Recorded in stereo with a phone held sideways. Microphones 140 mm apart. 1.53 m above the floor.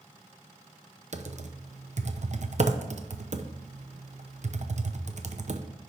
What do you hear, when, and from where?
1.1 s typing on a keyboard: 55° right (ahead or behind), 0.7 m